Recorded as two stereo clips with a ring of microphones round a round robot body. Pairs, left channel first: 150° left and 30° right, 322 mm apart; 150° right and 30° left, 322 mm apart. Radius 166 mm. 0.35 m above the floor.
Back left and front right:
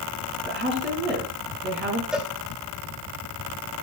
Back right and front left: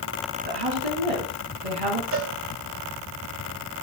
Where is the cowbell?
55° left, 2 m.